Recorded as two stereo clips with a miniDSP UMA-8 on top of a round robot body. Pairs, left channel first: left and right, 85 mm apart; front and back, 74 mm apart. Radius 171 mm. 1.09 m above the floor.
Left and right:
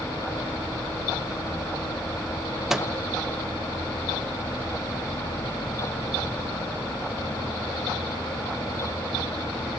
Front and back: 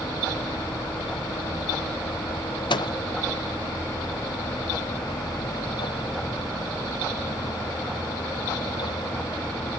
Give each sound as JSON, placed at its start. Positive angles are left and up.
{"t": 2.7, "sound": "a microwave", "azimuth_deg": -5, "distance_m": 0.9}